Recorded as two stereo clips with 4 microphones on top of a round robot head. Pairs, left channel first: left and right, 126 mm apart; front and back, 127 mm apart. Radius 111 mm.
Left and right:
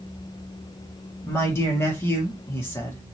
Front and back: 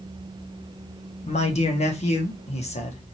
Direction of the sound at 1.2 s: 20° left.